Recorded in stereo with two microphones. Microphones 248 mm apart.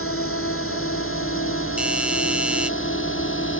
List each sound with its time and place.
0.0 s a drone: 60° left (ahead or behind); by 3.6 s 55° left (ahead or behind)
1.8 s a doorbell: 5° right (ahead or behind)